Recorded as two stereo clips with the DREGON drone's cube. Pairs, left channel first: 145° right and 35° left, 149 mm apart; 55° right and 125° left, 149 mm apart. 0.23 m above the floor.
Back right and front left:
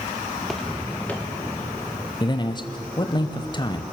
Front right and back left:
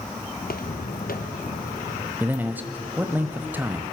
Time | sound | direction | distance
0.4 | footsteps | 55° right | 1.4 m
2.2 | a man speaking | 170° right | 1.1 m